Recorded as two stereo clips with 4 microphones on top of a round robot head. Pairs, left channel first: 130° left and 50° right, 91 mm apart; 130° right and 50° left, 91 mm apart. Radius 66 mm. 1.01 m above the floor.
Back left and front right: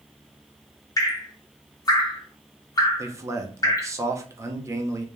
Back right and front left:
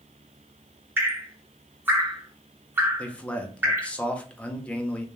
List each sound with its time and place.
1.0 s dripping: 110° left, 0.9 m
3.0 s a man speaking: 65° right, 0.6 m